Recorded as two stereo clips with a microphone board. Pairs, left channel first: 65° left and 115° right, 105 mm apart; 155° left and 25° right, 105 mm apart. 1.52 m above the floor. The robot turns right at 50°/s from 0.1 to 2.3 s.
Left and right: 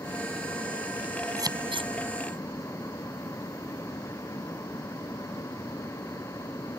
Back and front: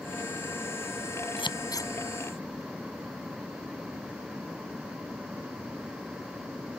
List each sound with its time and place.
1.4 s scissors: 170° right; by 1.9 s 140° right